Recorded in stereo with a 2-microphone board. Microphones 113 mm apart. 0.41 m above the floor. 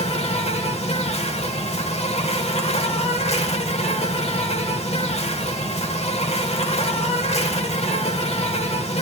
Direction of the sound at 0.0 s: 65° left (ahead or behind).